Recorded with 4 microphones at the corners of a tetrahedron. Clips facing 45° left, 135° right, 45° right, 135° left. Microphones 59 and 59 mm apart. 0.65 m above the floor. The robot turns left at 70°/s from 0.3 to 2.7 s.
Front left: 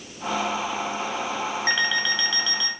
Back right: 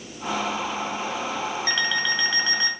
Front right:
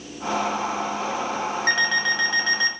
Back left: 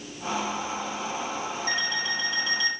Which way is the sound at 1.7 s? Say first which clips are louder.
Front left 1 dB, front right 9 dB; 25° right.